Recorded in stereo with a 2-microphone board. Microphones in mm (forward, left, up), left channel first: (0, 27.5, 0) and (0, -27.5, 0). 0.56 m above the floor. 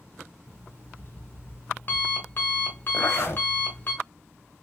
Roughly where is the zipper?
Left.